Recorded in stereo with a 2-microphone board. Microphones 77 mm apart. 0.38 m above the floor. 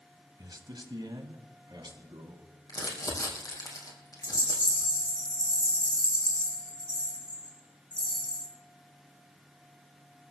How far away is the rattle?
About 5 m.